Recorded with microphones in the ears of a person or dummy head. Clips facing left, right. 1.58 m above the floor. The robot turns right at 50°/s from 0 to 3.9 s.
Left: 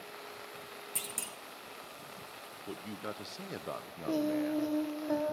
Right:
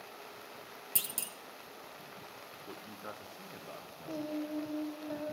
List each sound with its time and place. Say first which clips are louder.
0.9 s a clunk: left 2 dB; 20° right (ahead or behind), 0.5 m; by 1.4 s centre (ahead or behind), 0.5 m
2.7 s a man speaking: left 6 dB; 25° left, 0.9 m; by 4.8 s 90° left, 0.9 m
4.1 s singing: left 7 dB; 70° left (ahead or behind), 0.7 m